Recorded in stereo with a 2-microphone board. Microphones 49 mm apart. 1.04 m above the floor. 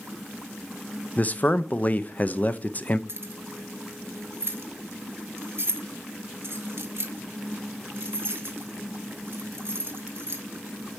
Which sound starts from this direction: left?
A man speaking, at 1.2 s.